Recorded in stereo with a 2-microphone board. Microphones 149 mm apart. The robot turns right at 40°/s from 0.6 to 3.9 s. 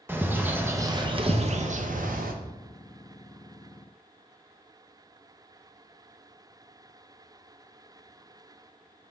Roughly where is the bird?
Behind.